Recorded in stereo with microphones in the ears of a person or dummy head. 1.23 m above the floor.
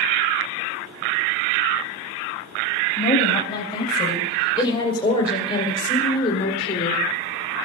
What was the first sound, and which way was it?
A woman speaking, 20° left (ahead or behind).